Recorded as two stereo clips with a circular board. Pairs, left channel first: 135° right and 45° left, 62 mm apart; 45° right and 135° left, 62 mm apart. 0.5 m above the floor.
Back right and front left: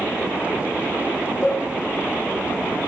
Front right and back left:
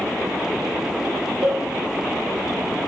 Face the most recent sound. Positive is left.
turn(degrees=-175)